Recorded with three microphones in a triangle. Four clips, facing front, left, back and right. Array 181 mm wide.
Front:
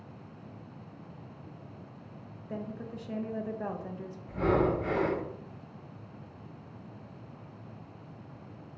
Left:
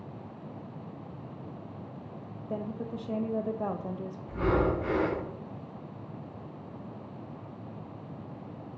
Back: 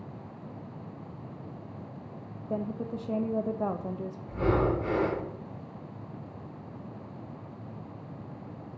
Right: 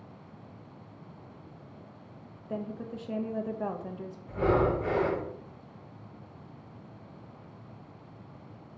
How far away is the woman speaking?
About 0.5 m.